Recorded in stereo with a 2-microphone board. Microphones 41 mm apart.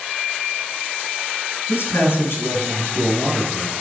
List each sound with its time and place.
1.7 s a man speaking: 60° left (ahead or behind), 2.5 m